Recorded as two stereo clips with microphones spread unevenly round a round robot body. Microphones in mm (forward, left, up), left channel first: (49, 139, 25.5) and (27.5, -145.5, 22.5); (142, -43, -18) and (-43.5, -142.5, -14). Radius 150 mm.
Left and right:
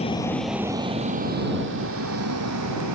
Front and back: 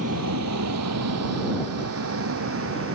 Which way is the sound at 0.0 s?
160° left.